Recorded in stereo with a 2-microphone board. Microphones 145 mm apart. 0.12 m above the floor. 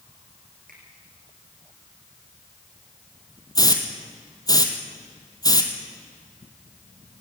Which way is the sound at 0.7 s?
75° right (ahead or behind).